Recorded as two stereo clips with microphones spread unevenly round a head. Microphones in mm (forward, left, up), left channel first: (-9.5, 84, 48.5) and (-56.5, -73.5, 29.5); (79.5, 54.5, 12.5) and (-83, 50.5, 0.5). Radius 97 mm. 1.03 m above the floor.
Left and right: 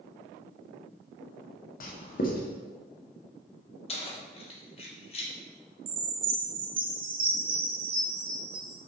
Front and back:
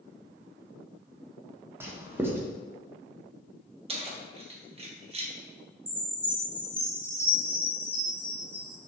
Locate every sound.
1.8 s writing: 105° left, 0.7 m
3.9 s keys jangling: 125° left, 0.8 m
5.9 s a chime: 100° right, 0.8 m